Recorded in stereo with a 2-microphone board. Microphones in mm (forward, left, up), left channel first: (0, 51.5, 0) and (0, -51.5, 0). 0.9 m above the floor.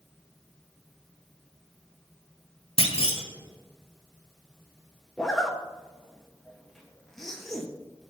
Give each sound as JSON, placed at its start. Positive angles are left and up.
{"t": 2.8, "sound": "a clunk", "side_deg": 70, "distance_m": 1.2}
{"t": 5.2, "sound": "a zipper", "side_deg": 5, "distance_m": 1.0}